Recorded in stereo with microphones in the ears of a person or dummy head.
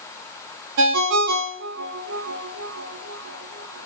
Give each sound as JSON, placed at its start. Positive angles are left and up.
{"t": 0.8, "sound": "a ringtone", "side_deg": -75, "distance_m": 0.5}